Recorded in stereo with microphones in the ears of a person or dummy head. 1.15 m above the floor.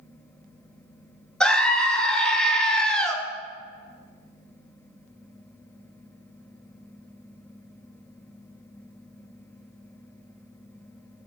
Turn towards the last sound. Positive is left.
turn(degrees=5)  # may be behind; listen again after turning